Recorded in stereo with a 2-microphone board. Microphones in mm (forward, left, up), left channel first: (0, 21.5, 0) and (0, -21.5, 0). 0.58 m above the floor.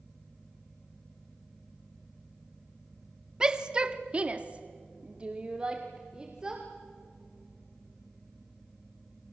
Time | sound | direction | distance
3.4 | a shout | 15° right (ahead or behind) | 1.3 m